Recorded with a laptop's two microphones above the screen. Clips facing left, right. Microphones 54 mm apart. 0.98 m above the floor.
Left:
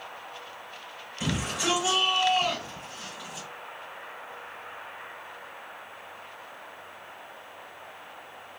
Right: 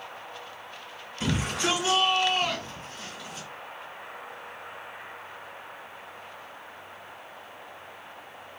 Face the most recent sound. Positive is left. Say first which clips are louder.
# right 2 dB
turn(degrees=10)  # may be behind; listen again after turning